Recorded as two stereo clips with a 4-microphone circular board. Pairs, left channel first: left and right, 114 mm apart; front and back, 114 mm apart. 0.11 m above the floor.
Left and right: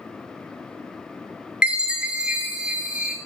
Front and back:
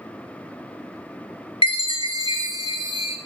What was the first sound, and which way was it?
A chime, 10° right.